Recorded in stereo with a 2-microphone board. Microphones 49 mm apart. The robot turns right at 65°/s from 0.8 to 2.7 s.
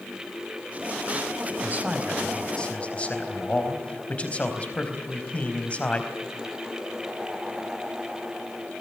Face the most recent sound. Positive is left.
turn(degrees=30)